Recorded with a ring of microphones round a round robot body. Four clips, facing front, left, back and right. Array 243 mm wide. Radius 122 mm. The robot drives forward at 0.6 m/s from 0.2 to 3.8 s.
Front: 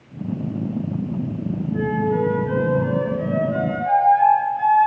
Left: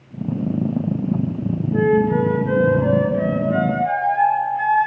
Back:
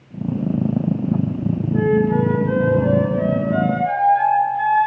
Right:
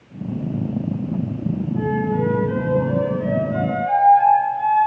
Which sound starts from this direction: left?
A flute, at 1.7 s.